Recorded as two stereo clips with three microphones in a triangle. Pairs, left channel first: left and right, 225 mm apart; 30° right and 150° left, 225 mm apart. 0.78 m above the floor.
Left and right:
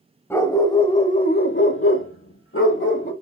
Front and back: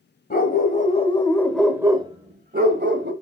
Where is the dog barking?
10° left, 1.6 m; by 3.1 s 120° left, 1.6 m.